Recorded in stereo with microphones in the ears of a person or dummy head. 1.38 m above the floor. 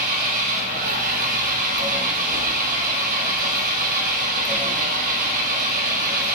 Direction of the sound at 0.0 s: 45° right (ahead or behind).